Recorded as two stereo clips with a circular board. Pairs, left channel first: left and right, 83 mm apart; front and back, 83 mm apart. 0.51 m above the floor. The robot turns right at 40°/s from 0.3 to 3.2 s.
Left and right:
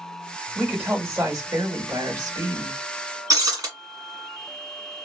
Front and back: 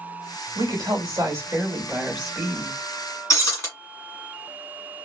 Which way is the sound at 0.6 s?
165° right.